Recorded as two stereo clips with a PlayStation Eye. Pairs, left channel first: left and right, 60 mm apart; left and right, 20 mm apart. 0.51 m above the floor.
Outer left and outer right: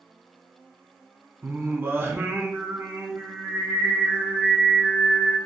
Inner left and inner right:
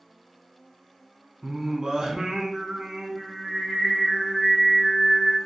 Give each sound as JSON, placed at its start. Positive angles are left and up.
{"t": 1.4, "sound": "singing", "side_deg": -40, "distance_m": 0.6}